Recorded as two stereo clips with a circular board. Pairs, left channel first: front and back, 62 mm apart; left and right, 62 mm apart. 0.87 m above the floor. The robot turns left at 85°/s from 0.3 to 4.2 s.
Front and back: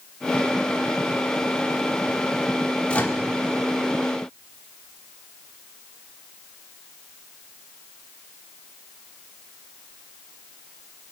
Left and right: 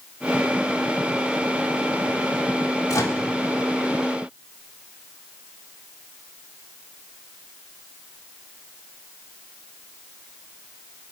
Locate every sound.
2.9 s a microwave: 70° left, 1.6 m; by 3.2 s 45° left, 1.6 m